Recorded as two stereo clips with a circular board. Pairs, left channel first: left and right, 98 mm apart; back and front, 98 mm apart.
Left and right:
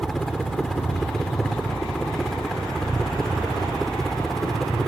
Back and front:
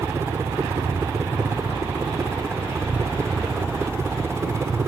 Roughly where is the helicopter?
Ahead.